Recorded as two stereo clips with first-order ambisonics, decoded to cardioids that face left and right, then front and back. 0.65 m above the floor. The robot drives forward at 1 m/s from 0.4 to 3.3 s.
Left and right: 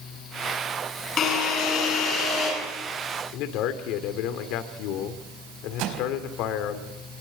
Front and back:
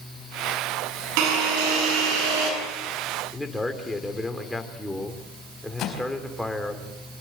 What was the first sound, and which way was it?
A drill, 155° left.